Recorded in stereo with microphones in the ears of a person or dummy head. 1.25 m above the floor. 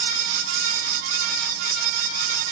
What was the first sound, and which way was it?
Only background noise.